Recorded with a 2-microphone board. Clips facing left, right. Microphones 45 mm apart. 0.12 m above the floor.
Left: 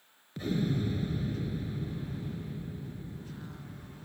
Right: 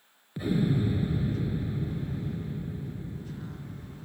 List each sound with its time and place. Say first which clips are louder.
0.4 s an explosion: right 4 dB; 10° right (ahead or behind)